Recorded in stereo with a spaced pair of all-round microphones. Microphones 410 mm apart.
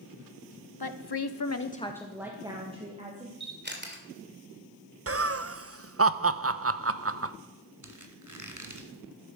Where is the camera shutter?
25° right (ahead or behind), 2.5 m.